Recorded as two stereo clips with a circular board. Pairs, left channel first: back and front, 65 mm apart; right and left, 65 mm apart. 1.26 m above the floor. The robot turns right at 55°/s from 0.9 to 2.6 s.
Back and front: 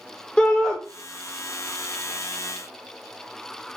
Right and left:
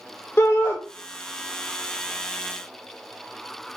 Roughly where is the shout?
Behind right.